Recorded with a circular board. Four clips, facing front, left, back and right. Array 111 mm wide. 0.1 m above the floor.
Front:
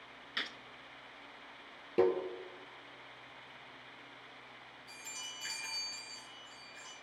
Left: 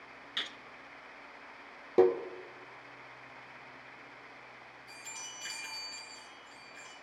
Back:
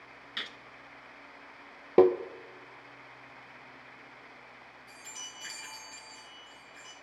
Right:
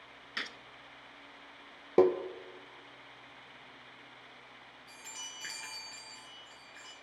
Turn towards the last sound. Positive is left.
turn(degrees=-105)